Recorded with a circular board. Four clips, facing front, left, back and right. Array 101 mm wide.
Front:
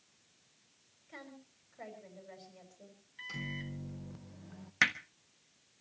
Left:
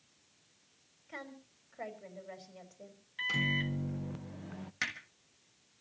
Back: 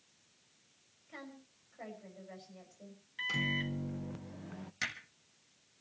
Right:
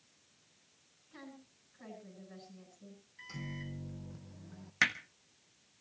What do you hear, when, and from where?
1.1 s a woman speaking: 85° left, 5 m
3.2 s a microwave: 125° left, 0.6 m
4.8 s hammering: 25° right, 1.3 m